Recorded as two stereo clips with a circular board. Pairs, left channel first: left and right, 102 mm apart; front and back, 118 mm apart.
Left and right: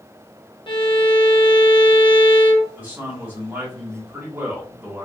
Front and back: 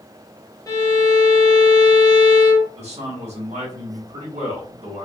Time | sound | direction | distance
0.7 | a violin | 60° left | 0.6 m
2.8 | a man speaking | 165° right | 1.4 m